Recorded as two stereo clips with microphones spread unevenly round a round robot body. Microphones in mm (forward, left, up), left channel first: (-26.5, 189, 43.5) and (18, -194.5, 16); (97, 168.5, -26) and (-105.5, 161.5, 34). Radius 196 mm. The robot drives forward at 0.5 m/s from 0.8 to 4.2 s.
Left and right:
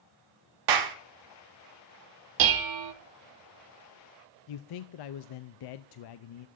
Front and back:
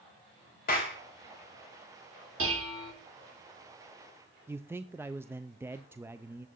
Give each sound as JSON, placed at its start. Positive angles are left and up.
{"t": 0.7, "sound": "a clap", "azimuth_deg": -50, "distance_m": 1.2}
{"t": 2.4, "sound": "dishes clattering", "azimuth_deg": -120, "distance_m": 0.8}
{"t": 4.5, "sound": "a man speaking", "azimuth_deg": 90, "distance_m": 0.6}